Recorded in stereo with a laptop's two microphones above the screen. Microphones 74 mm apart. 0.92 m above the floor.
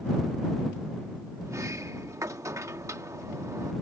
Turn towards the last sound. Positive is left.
turn(degrees=-45)  # may be behind; listen again after turning